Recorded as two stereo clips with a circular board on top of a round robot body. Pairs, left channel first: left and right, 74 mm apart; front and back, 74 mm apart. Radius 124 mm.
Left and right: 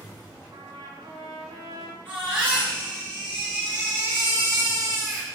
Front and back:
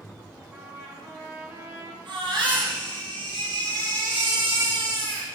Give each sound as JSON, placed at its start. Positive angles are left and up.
{"t": 0.5, "sound": "a trumpet", "azimuth_deg": -120, "distance_m": 4.5}
{"t": 2.0, "sound": "a baby crying", "azimuth_deg": -160, "distance_m": 5.5}